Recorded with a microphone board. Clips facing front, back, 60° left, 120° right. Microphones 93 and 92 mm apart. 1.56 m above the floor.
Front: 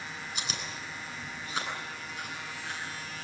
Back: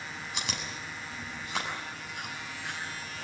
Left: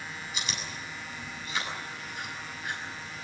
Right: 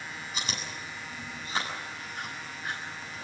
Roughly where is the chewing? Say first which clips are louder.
Back 2 dB, right 1 dB; behind.